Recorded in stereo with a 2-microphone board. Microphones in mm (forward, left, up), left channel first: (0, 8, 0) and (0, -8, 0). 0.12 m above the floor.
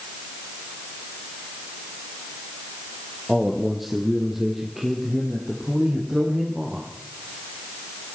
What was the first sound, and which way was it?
A man speaking, 5° left (ahead or behind).